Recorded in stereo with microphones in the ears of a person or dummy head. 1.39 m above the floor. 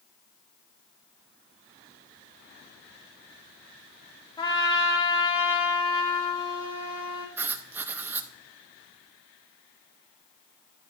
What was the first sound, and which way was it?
A trumpet, 25° left (ahead or behind).